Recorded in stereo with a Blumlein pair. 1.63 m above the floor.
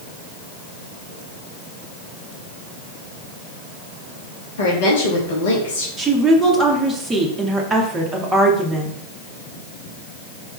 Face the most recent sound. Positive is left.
turn(degrees=-15)